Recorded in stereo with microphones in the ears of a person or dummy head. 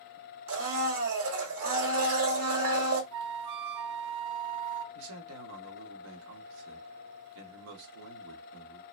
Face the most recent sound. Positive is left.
turn(degrees=-70)  # may be behind; listen again after turning